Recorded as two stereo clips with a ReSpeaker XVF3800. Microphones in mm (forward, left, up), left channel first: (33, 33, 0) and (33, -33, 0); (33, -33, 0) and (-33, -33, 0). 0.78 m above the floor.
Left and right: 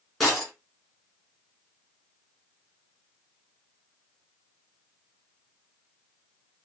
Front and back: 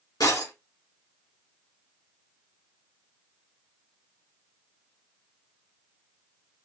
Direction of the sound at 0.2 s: Straight ahead.